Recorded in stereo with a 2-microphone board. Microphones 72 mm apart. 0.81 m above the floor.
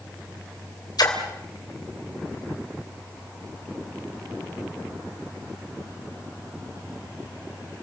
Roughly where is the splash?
Left.